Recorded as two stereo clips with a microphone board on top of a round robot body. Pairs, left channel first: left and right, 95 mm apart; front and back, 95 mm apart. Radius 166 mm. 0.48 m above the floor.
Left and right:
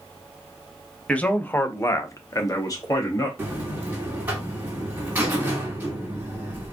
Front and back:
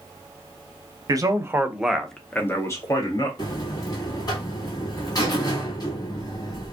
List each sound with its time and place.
1.1 s a man speaking: 160° left, 0.8 m; by 3.3 s 40° left, 1.1 m
3.4 s a buzzer: 25° right, 1.9 m